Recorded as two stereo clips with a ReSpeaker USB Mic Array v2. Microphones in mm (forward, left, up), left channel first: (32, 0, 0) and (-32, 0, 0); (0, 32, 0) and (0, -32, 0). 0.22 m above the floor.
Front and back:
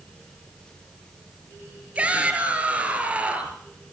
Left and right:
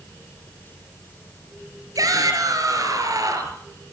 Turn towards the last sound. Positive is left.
turn(degrees=-110)